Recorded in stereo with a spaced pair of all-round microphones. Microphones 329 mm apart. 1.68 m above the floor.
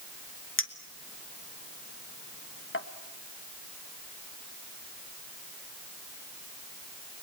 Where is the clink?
40° left (ahead or behind), 1.4 m.